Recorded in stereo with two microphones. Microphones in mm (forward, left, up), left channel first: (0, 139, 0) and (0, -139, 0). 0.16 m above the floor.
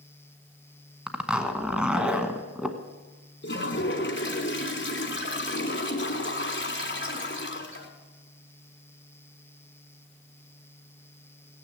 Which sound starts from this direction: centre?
A zipper, at 1.1 s.